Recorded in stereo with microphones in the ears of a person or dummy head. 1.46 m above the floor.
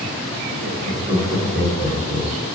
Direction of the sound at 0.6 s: 65° right (ahead or behind).